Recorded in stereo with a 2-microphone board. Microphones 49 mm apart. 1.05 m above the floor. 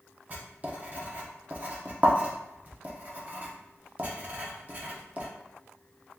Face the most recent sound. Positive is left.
turn(degrees=-35)  # may be behind; listen again after turning